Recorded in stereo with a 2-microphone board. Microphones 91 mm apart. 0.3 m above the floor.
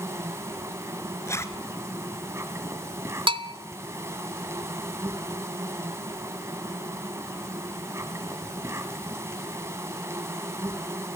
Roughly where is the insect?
Right.